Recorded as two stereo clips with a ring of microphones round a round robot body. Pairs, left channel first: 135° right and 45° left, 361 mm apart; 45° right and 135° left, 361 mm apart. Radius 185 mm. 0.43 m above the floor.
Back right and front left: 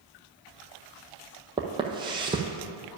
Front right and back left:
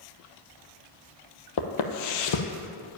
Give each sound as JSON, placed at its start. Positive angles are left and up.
{"t": 1.6, "sound": "footsteps", "azimuth_deg": -30, "distance_m": 0.7}